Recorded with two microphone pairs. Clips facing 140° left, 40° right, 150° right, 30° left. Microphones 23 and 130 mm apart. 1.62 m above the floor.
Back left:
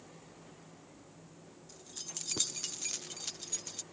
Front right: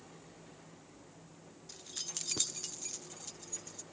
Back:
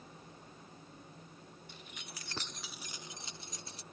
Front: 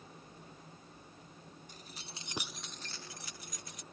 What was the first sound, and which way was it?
Keys jangling, straight ahead.